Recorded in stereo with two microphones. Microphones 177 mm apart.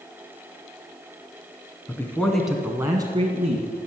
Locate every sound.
1.9 s a man speaking: 15° left (ahead or behind), 2.0 m; by 3.9 s 45° right (ahead or behind), 2.0 m